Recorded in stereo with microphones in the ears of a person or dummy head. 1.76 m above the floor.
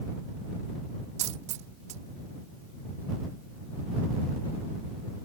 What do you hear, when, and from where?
1.2 s a dropped coin: 40° right (ahead or behind)